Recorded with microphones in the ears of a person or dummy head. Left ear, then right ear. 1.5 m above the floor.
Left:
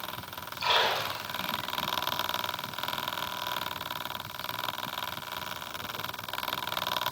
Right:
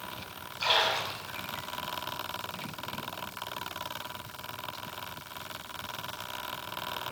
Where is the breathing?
I don't hear breathing.